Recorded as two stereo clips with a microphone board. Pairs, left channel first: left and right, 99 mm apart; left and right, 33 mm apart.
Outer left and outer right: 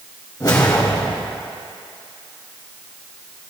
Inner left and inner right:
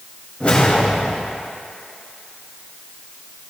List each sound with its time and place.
0.4 s a whoosh: 40° left (ahead or behind), 2 m